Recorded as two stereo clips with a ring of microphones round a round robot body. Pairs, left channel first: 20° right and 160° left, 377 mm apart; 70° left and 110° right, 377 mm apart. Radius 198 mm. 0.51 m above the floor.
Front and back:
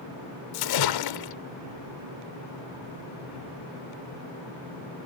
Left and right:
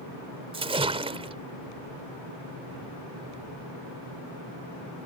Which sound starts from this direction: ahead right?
A splash, at 0.5 s.